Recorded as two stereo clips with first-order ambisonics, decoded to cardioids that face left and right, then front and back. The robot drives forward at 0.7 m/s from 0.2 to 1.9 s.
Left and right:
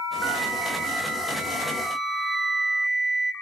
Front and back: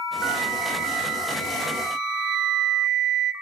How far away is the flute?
About 0.8 m.